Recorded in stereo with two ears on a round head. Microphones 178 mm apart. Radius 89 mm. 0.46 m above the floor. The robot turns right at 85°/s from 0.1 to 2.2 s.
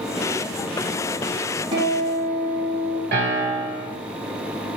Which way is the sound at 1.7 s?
25° right (ahead or behind).